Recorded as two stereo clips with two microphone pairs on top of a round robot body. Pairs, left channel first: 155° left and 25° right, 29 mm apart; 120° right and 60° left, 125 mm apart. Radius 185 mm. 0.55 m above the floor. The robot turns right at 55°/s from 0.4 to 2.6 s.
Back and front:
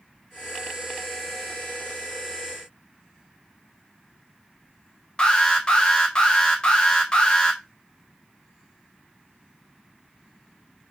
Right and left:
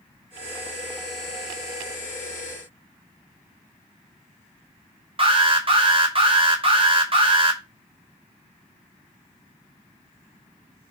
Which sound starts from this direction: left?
An alarm, at 5.2 s.